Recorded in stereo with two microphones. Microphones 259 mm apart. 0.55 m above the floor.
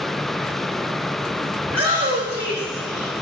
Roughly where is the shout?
Right.